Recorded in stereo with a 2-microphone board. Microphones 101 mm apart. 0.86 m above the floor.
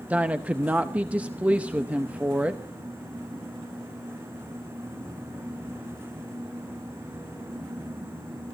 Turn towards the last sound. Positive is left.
turn(degrees=-15)  # may be behind; listen again after turning